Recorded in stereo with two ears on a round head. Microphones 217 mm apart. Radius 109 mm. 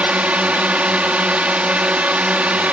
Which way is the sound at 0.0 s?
5° right (ahead or behind).